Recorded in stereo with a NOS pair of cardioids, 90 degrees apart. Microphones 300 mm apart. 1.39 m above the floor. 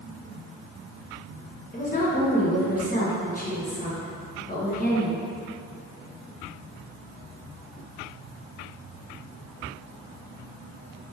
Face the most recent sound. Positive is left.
turn(degrees=30)